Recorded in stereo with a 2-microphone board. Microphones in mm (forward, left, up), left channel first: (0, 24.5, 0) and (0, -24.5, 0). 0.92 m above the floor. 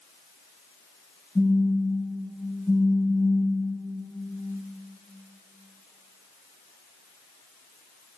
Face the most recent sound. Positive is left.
turn(degrees=15)  # may be behind; listen again after turning